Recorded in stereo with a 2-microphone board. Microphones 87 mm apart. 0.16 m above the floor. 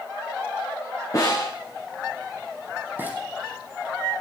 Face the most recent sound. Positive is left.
turn(degrees=-20)  # may be behind; listen again after turning